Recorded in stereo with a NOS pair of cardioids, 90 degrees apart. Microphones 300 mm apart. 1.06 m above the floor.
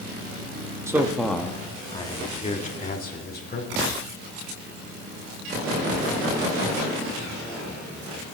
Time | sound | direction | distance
0.9 | a man speaking | 10° right | 1.2 m